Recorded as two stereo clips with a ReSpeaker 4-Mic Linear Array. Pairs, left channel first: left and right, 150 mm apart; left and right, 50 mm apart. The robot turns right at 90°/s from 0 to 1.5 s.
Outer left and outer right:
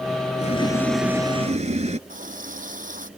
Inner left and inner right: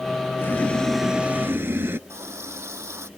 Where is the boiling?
125° left; by 2.0 s 130° right.